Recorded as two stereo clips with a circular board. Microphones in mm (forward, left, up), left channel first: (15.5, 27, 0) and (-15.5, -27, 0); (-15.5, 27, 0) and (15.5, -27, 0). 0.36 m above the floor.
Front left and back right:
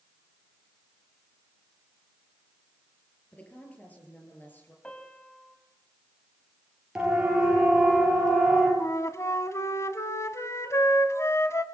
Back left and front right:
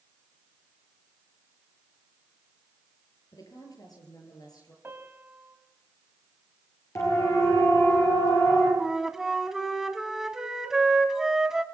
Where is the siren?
165° left, 9.5 m; by 8.7 s 150° left, 10.5 m.